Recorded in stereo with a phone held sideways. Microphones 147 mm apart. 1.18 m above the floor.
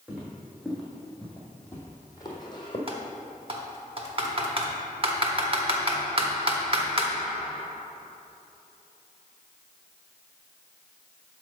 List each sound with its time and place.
0.1 s footsteps: 5° right (ahead or behind), 2 m; by 2.8 s 35° left (ahead or behind), 1.7 m
2.9 s typing on a keyboard: 40° right (ahead or behind), 1.0 m